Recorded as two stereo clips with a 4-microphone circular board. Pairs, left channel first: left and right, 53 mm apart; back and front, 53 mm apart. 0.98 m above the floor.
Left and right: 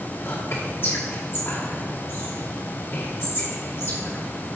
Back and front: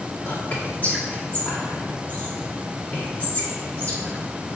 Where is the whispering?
130° left, 2 m.